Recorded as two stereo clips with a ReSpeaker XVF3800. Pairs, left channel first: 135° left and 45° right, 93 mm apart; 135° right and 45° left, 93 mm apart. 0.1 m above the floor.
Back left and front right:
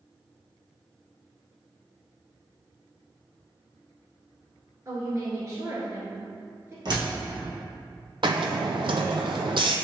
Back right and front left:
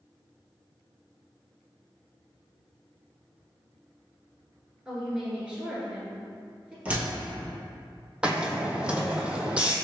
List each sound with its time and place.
4.8 s a woman speaking: 25° right, 1.3 m
6.8 s a door slam: 25° right, 1.6 m
8.2 s a hiss: 30° right, 0.6 m